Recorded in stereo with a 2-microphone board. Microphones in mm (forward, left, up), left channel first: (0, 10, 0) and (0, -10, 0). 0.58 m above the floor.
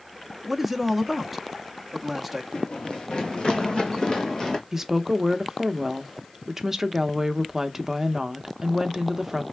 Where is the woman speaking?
15° right (ahead or behind), 0.6 m.